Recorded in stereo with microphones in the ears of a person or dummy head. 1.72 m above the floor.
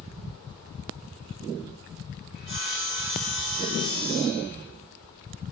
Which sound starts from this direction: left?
Sawing, at 2.4 s.